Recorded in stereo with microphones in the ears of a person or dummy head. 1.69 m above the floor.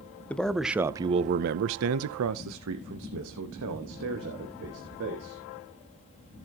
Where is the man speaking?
5° left (ahead or behind), 0.8 m; by 5.4 s 55° right (ahead or behind), 2.5 m.